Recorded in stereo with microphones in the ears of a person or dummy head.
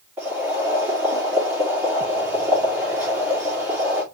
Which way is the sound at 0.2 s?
10° right (ahead or behind).